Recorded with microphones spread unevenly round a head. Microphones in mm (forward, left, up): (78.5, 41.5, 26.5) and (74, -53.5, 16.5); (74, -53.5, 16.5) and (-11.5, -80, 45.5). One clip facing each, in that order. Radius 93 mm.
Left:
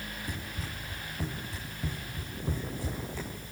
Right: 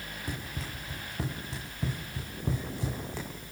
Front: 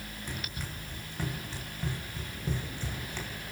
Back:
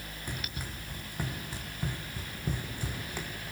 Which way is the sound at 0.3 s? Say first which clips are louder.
Right 1 dB, back 1 dB; 90° right.